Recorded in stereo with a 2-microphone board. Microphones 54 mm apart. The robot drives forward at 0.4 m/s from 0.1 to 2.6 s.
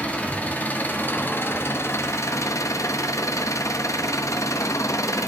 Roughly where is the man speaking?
I don't hear a man speaking.